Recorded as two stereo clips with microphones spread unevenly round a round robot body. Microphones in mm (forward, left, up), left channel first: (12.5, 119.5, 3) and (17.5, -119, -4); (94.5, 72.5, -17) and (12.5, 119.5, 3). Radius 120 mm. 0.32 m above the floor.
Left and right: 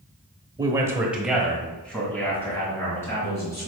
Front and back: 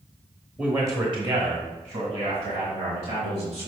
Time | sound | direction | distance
0.6 | a man speaking | 120° right | 1.0 m